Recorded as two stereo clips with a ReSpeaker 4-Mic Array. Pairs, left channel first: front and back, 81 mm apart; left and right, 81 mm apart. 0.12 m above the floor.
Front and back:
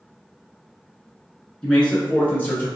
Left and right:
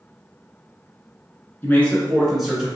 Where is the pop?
I don't hear a pop.